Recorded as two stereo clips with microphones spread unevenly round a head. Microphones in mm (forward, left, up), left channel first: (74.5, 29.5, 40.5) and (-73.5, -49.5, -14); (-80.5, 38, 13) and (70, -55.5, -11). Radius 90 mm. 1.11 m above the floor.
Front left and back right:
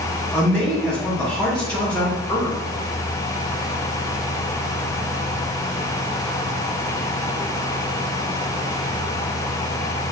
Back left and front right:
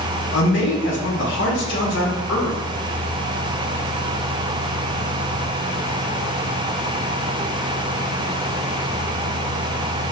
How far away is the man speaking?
About 1.0 m.